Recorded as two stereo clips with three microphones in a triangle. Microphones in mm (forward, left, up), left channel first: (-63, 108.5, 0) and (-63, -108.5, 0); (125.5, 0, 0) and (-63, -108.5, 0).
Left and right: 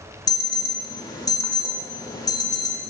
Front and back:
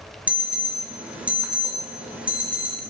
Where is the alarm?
135° left, 0.6 m.